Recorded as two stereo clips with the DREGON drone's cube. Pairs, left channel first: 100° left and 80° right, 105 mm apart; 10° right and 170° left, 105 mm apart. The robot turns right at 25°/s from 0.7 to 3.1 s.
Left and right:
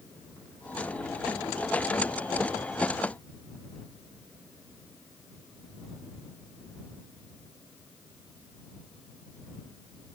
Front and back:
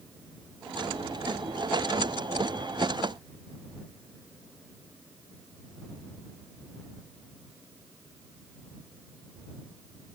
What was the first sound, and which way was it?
Only background noise.